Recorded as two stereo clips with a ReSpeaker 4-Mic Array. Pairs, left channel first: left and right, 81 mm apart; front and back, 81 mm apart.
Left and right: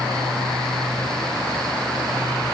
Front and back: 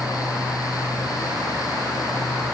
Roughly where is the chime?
No chime in this recording.